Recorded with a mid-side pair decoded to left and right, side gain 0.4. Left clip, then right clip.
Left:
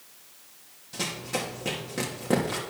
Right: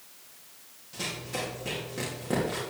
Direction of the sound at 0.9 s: 45° left.